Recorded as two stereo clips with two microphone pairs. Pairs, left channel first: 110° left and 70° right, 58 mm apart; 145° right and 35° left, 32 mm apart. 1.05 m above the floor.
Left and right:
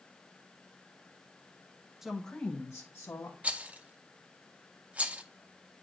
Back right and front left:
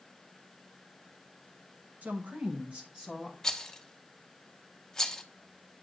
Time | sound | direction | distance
2.0 | a woman speaking | 10° left | 1.0 m
3.4 | a rattle | 90° right | 0.5 m